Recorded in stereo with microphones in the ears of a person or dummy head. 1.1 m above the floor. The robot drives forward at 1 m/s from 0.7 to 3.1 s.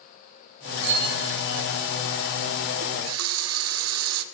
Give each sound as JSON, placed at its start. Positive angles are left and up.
{"t": 0.8, "sound": "a bicycle bell", "side_deg": -65, "distance_m": 7.0}
{"t": 2.8, "sound": "a running tap", "side_deg": -80, "distance_m": 1.2}